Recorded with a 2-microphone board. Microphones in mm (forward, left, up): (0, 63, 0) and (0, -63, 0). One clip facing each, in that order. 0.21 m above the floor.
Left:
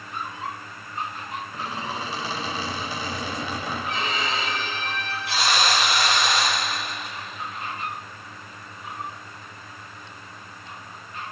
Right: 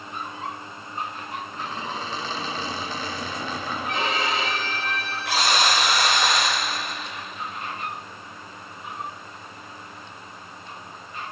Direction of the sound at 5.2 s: 70° right (ahead or behind).